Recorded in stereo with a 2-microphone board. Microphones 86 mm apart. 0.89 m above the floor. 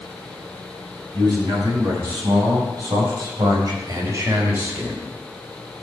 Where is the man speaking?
60° right (ahead or behind), 8 m; by 5.0 s 20° right (ahead or behind), 3.5 m.